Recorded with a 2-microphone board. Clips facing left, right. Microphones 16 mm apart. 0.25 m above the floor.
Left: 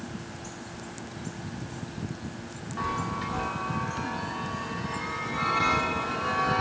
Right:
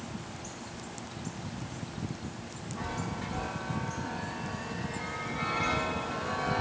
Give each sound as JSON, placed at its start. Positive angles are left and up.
{"t": 2.8, "sound": "a chime", "side_deg": 40, "distance_m": 0.8}